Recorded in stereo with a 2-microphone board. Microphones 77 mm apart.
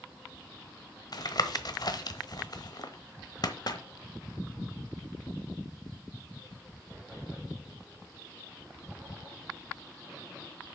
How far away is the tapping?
About 1.0 m.